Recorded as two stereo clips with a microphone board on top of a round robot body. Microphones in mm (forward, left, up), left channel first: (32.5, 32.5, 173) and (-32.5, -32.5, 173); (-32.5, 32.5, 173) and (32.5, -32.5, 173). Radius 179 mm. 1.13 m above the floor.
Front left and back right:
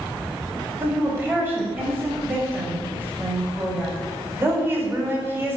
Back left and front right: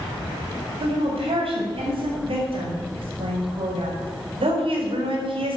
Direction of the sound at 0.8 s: 65° right.